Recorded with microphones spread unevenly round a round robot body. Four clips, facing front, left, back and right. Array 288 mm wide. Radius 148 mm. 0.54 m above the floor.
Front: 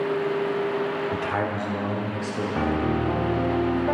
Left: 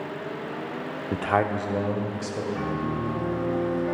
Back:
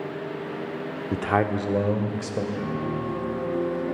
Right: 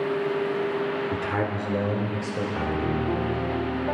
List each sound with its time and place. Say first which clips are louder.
1.1 s a man speaking: left 3 dB, back 2 dB; straight behind, 0.7 m; by 2.5 s 155° right, 2 m
2.5 s a piano: right 4 dB, front 5 dB; 10° right, 1.7 m